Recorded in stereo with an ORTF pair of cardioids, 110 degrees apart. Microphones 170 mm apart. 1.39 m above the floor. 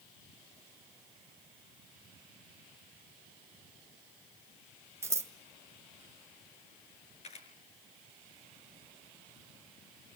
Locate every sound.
5.0 s scissors: 15° right, 1.6 m
7.2 s a camera shutter: 40° left, 6 m